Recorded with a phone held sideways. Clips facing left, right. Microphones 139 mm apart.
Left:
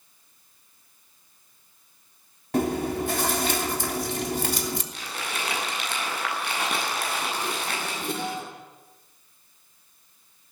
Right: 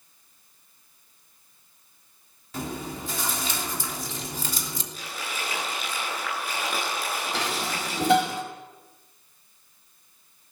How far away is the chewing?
About 3 m.